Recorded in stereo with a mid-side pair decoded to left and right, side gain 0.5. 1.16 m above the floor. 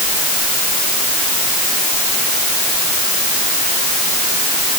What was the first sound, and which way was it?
Only background noise.